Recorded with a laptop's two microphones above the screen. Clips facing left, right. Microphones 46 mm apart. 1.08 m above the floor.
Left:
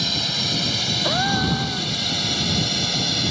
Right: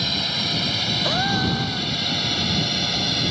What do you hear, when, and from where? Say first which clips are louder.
0.0 s a drone: even; 10° right (ahead or behind)
1.0 s a gasp: left 2 dB; centre (ahead or behind)